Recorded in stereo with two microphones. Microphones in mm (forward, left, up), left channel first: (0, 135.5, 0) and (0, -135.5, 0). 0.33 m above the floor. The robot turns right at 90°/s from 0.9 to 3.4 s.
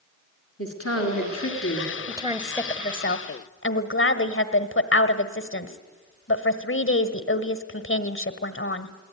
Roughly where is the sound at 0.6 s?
Ahead left.